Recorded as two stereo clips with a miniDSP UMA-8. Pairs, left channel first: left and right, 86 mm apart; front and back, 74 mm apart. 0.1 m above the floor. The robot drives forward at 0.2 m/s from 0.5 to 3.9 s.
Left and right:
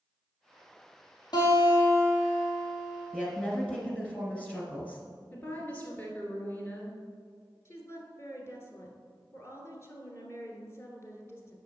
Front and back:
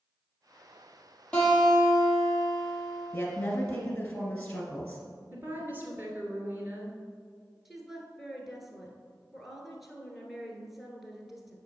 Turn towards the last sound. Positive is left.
turn(degrees=95)